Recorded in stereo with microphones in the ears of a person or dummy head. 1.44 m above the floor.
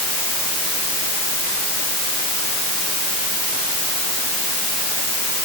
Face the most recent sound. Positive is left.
No sound to turn to.